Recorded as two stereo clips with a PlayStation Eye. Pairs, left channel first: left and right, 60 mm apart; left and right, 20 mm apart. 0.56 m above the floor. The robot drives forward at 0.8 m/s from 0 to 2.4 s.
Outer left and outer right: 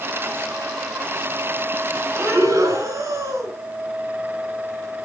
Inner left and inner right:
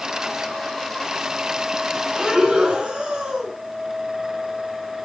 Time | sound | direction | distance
2.1 | breathing | 70° right (ahead or behind) | 4.5 m